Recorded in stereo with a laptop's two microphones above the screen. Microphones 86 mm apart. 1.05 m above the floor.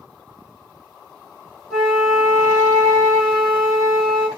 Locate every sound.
1.7 s a flute: 5° left (ahead or behind), 1.8 m